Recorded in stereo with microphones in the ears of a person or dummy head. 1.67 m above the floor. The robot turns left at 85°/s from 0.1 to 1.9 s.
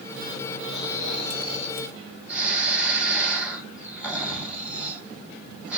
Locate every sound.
0.7 s snoring: 95° left, 2 m; by 5.8 s 10° right, 2 m